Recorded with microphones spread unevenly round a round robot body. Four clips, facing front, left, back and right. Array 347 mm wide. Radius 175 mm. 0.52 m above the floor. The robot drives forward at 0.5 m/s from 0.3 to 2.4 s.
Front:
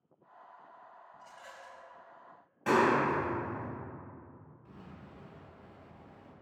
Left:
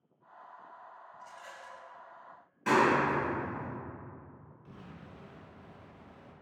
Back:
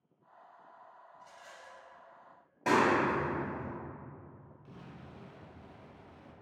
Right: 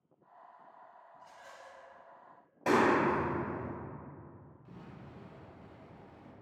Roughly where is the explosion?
Behind.